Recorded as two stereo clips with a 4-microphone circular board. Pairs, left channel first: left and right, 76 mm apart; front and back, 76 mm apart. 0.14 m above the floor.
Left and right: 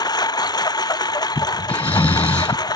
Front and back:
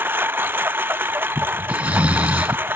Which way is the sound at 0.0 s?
115° left.